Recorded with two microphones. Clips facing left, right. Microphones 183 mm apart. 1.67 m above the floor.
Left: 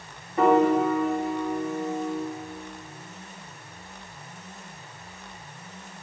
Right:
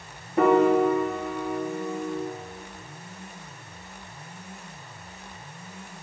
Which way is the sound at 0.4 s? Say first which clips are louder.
Right 1 dB; 55° right (ahead or behind).